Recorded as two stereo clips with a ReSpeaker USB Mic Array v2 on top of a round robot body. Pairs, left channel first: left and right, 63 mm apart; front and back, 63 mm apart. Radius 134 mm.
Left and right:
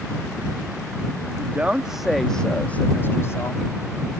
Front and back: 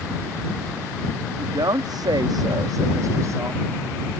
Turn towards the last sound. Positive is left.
turn(degrees=130)